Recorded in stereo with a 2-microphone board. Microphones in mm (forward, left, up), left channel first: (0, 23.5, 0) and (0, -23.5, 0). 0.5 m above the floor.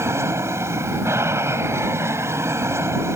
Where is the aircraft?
65° right (ahead or behind).